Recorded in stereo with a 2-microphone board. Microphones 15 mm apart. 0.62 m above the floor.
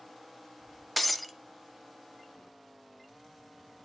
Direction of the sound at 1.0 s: 10° left (ahead or behind).